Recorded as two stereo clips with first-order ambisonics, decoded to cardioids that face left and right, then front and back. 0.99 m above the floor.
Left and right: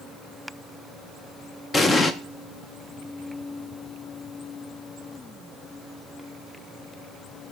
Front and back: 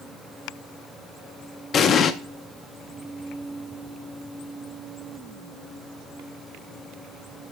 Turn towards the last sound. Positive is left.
turn(degrees=30)